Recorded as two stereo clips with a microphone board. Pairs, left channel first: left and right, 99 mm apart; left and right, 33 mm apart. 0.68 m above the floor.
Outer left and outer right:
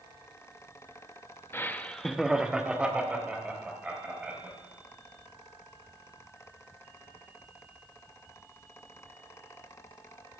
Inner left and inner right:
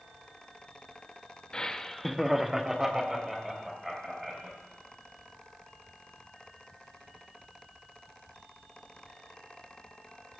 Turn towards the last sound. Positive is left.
turn(degrees=-15)  # may be behind; listen again after turning